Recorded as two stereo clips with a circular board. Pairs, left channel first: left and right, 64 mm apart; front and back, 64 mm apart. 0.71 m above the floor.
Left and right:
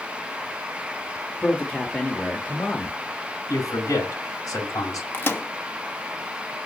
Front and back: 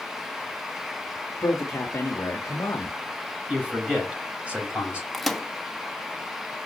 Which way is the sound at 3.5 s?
110° left.